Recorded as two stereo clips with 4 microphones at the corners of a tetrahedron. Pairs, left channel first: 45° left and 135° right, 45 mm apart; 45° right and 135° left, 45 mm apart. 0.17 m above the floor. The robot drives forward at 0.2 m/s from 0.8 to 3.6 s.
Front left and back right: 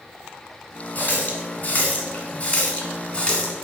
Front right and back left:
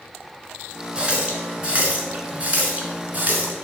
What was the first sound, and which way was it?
A running tap, 75° left.